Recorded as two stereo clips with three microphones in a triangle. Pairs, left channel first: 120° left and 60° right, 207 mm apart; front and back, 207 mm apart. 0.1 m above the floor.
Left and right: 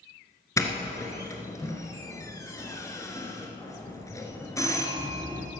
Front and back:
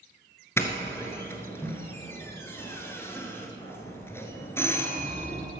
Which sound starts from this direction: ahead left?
A doorbell, at 0.6 s.